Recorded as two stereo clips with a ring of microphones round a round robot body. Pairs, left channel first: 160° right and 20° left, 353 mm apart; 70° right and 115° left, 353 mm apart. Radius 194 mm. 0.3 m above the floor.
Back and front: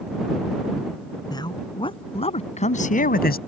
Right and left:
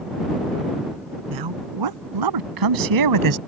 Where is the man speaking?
125° left; by 3.4 s 140° left.